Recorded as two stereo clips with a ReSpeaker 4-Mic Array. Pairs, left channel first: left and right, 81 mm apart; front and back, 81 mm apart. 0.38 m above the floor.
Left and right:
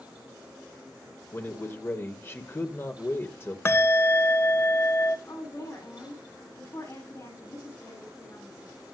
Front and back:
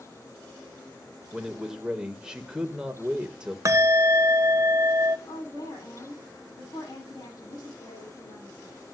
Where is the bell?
140° left, 0.8 m.